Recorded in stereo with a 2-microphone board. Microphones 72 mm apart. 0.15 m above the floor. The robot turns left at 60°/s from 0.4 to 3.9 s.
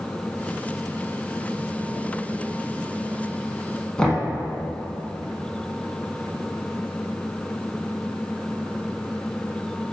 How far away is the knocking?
About 0.7 m.